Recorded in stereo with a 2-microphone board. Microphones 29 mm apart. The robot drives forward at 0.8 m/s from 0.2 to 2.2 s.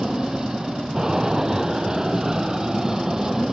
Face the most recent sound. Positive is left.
turn(degrees=-15)  # may be behind; listen again after turning